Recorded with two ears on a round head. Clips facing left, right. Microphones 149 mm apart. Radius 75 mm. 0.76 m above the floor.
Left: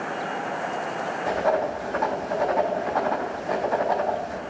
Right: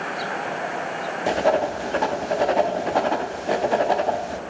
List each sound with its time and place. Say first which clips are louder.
1.3 s writing: right 3 dB; 30° right (ahead or behind), 0.6 m